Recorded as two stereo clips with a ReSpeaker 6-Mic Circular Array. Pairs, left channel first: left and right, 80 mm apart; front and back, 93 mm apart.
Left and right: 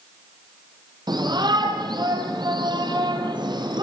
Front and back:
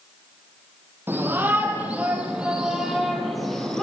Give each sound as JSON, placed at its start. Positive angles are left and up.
{"t": 1.1, "sound": "a shout", "azimuth_deg": -110, "distance_m": 5.0}